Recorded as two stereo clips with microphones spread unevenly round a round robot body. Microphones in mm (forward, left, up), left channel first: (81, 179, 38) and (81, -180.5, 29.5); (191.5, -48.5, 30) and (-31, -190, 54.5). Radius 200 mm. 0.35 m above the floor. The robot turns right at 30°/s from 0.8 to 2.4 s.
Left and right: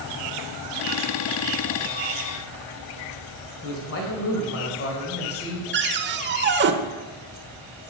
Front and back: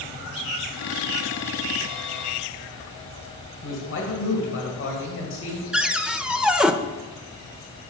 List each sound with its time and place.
3.6 s a man speaking: 45° left, 2 m
5.7 s a cupboard door: 55° right, 0.8 m